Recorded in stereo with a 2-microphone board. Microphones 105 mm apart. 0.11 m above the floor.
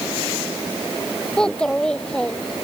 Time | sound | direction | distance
1.4 | a child speaking | 5° left (ahead or behind) | ?